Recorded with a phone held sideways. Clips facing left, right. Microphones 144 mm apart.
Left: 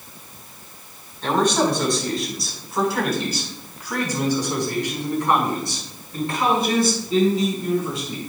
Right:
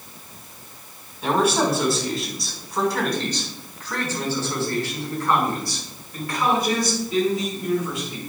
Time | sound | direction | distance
1.2 | a man speaking | 10° right (ahead or behind) | 4 m